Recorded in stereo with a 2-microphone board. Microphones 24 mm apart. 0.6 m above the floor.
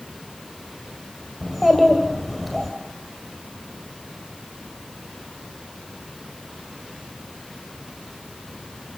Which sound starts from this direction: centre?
A child speaking, at 1.4 s.